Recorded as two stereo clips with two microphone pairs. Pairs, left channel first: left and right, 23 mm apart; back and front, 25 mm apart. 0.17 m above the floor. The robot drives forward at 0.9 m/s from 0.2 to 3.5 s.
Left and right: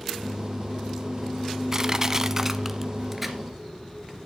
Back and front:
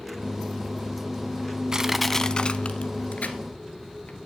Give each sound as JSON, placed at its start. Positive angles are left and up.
{"t": 1.7, "sound": "crushing", "azimuth_deg": -30, "distance_m": 0.5}